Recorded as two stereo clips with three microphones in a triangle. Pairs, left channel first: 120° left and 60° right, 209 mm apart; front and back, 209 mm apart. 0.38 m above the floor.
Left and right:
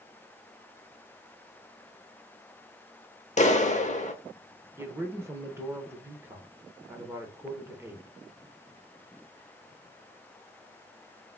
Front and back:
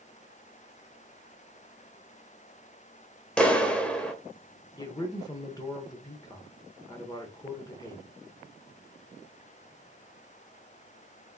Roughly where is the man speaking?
Ahead.